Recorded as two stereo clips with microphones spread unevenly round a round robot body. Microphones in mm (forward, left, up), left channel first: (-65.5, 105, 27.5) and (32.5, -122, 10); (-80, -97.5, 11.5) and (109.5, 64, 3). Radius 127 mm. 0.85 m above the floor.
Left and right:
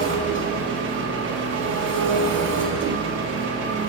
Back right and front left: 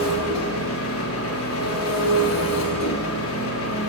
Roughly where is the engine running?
Right.